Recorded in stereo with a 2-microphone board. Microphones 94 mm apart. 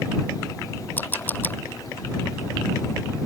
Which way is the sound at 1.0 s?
20° left (ahead or behind).